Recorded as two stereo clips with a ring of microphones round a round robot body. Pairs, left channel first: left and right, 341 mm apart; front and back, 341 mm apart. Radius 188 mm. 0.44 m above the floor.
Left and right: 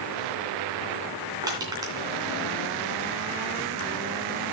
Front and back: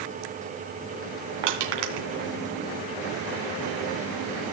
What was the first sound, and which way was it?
Crushing, 170° right.